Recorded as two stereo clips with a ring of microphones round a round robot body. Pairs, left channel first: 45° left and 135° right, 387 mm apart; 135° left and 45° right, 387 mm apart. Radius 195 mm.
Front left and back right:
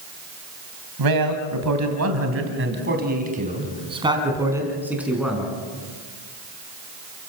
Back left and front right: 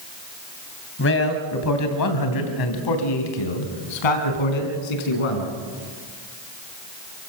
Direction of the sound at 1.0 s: 165° right.